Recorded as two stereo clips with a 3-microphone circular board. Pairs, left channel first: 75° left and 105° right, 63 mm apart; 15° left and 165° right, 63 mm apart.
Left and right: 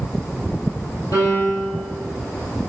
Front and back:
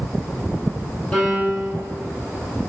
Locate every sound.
1.1 s a piano: 85° left, 4 m